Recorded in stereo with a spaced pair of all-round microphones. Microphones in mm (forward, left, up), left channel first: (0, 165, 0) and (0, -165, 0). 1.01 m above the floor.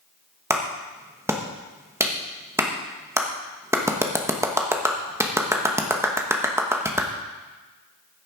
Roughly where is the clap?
Centre.